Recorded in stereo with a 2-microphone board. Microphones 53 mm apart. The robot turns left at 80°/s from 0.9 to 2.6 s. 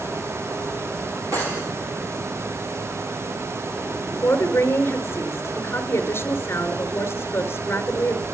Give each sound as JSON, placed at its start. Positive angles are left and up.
{"t": 1.3, "sound": "cutlery clinking", "azimuth_deg": -100, "distance_m": 10.0}
{"t": 4.1, "sound": "a woman speaking", "side_deg": 50, "distance_m": 4.0}